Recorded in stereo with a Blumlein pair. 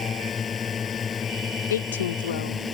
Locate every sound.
0.0 s a drone: 20° left
1.7 s a woman speaking: 60° left